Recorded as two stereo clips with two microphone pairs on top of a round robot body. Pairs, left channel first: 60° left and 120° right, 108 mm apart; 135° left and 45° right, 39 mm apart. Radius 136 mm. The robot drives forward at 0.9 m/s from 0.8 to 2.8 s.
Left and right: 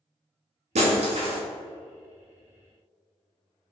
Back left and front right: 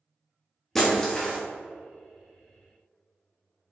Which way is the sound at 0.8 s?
145° right.